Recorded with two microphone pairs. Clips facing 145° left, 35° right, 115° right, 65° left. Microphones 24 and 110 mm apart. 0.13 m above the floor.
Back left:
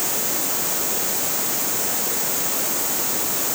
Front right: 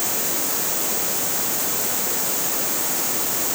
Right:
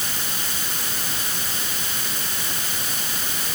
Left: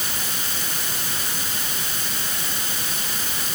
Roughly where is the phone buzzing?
I don't hear a phone buzzing.